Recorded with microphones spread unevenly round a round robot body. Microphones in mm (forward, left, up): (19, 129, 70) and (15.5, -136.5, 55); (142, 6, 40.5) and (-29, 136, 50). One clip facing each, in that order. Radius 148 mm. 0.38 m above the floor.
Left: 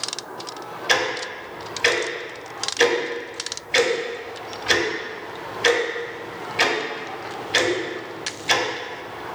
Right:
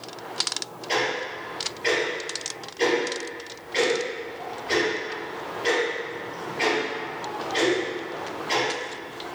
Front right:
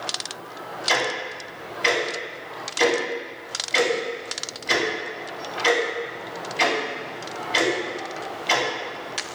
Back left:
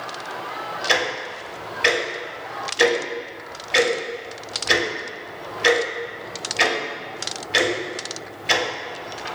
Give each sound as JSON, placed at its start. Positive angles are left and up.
{"t": 0.9, "sound": "ticking", "azimuth_deg": 75, "distance_m": 0.6}